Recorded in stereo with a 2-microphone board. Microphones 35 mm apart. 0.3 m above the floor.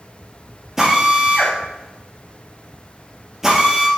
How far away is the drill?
About 4.5 m.